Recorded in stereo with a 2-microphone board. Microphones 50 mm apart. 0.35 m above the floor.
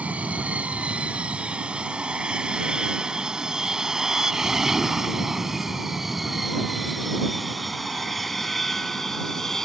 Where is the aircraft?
30° right (ahead or behind); by 9.7 s 5° left (ahead or behind).